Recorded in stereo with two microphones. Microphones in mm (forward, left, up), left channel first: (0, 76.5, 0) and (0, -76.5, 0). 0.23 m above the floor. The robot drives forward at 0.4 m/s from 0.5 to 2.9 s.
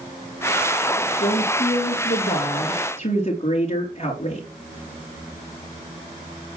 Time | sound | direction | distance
1.2 | a woman speaking | 55° left (ahead or behind) | 4.5 m